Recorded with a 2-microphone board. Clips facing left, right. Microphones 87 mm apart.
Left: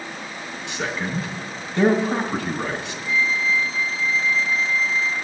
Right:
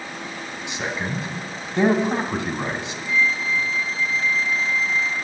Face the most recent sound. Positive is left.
turn(degrees=-45)  # may be behind; listen again after turning